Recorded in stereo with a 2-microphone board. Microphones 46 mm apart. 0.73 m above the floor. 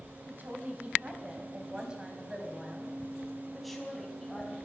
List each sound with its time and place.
0.3 s a woman speaking: 45° right (ahead or behind), 4 m; by 4.5 s 10° left (ahead or behind), 5 m